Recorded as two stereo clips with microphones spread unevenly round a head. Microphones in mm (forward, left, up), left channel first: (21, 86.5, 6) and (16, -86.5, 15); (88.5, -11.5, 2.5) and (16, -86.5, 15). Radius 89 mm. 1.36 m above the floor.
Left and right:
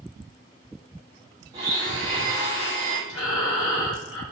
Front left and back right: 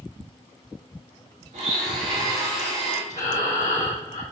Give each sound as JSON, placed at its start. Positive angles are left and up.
{"t": 1.5, "sound": "a blender", "azimuth_deg": -160, "distance_m": 3.0}
{"t": 3.1, "sound": "breathing", "azimuth_deg": 105, "distance_m": 3.0}